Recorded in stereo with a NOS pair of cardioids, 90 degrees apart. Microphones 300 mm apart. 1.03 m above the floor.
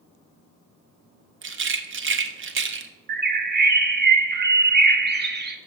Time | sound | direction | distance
1.4 | a rattle | 45° right | 0.8 m
3.1 | a bird | 35° right | 1.0 m